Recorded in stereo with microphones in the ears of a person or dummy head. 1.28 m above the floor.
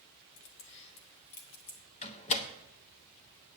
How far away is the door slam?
About 0.9 m.